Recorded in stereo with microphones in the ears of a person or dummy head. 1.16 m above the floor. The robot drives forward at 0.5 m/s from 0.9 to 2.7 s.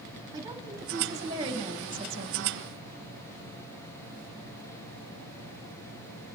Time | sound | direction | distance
0.3 | a woman speaking | 20° right (ahead or behind) | 1.8 m